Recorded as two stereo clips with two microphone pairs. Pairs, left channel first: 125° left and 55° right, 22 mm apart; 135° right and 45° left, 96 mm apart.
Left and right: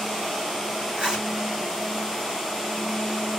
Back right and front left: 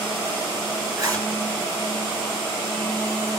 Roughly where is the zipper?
Ahead.